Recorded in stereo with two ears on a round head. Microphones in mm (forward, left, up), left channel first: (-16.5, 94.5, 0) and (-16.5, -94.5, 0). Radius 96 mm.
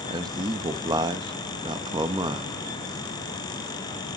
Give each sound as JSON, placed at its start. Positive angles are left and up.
{"t": 0.1, "sound": "a man speaking", "side_deg": -20, "distance_m": 1.0}